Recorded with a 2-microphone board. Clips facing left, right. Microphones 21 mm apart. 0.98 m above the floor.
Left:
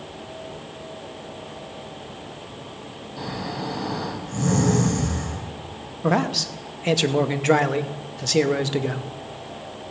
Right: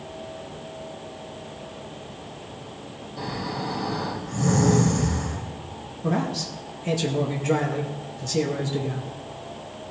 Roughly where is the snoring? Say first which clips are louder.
Even; left.